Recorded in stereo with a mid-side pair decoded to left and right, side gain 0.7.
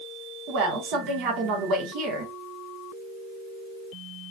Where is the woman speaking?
65° right, 1.6 m.